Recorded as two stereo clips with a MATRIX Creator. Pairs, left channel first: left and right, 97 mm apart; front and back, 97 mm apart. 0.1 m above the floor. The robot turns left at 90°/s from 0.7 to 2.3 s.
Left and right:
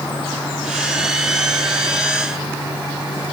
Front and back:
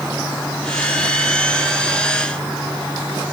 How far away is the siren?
I don't hear a siren.